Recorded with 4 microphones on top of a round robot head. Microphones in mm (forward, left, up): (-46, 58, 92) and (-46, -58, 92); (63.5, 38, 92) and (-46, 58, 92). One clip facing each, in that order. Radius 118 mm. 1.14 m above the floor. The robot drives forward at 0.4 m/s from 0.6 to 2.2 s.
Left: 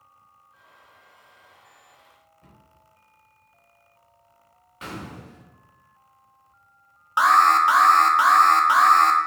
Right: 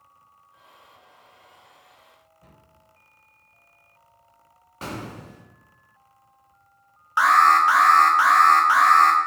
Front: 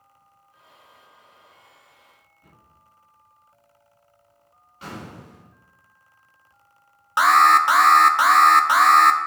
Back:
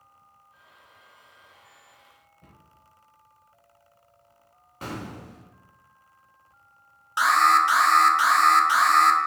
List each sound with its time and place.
2.4 s a cupboard door: 170° right, 5 m
4.8 s an explosion: 140° right, 2 m
7.2 s an alarm: 20° left, 0.9 m